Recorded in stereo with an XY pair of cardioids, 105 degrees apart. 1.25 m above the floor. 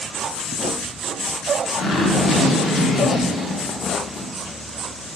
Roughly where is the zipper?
Ahead left.